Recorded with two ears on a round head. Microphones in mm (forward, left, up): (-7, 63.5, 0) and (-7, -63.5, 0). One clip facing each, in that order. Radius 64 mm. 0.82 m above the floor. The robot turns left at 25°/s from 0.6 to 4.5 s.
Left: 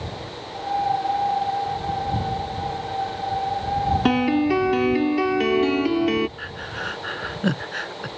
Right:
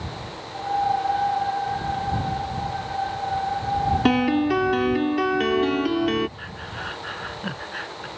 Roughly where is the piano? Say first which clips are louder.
Even; centre.